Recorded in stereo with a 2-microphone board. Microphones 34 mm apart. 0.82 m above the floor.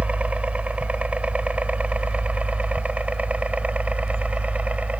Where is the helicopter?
35° right (ahead or behind).